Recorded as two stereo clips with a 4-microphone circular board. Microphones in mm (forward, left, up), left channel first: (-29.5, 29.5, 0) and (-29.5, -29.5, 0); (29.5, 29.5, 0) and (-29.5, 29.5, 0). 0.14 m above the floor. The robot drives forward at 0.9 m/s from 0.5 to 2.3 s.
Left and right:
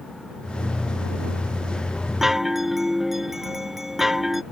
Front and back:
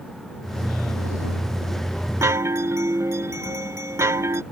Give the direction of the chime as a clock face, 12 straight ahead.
6 o'clock.